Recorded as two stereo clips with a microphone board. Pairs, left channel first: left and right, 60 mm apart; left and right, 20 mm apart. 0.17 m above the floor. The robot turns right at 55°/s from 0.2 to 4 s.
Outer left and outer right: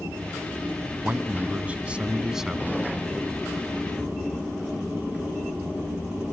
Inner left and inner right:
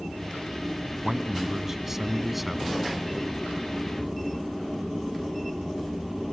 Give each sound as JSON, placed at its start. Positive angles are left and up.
{"t": 1.0, "sound": "a man speaking", "side_deg": -25, "distance_m": 1.1}